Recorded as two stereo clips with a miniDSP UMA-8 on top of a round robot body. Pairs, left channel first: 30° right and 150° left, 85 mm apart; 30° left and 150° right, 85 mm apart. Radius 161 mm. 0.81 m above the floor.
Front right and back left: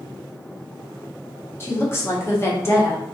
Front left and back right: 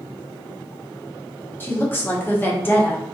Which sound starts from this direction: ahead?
A woman speaking, at 1.6 s.